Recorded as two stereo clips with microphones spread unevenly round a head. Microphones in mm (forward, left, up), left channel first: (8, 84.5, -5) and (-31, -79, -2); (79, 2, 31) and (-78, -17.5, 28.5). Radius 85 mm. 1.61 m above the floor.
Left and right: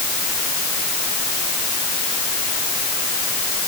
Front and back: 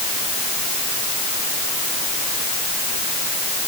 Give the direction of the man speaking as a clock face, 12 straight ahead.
No man speaking in this recording.